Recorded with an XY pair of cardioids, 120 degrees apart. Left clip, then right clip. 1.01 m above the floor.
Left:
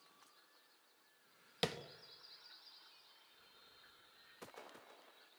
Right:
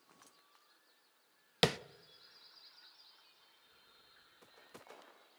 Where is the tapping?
50° right, 0.8 m.